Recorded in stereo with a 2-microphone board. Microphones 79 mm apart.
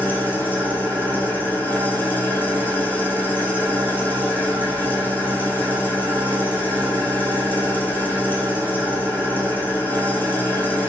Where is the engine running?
25° left (ahead or behind), 2.0 m.